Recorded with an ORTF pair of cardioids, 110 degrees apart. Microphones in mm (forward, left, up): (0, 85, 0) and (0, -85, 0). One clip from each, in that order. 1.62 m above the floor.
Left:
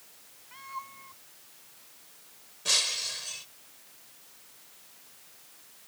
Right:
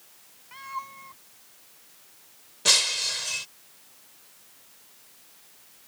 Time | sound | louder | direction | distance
0.5 | a cat meowing | right 5 dB | 30° right | ?
2.6 | breaking glass | right 5 dB | 65° right | ?